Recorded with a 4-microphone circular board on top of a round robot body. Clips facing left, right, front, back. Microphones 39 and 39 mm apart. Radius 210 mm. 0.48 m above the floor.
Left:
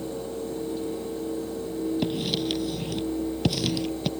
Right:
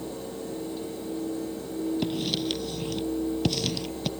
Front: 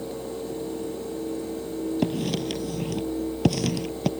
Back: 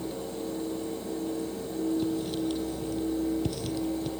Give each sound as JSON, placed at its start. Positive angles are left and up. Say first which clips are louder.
{"t": 2.0, "sound": "writing", "louder": "left 1 dB, front 3 dB", "azimuth_deg": 5}